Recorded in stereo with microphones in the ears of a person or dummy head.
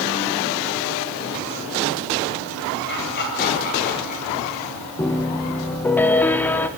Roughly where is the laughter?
Left.